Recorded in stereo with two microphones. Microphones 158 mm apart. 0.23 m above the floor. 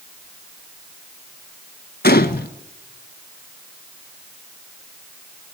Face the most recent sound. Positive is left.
turn(degrees=80)